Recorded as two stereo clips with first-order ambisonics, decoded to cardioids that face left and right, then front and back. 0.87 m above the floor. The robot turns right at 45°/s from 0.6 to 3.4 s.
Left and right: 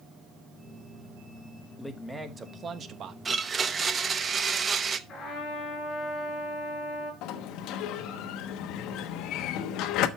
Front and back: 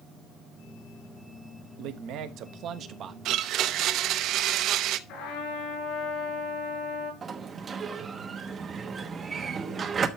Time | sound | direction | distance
1.8 | a man speaking | 170° left | 1.2 m
3.2 | a blender | 165° right | 0.8 m
5.1 | a trumpet | 30° left | 7 m
7.2 | a sliding door | 115° left | 1.1 m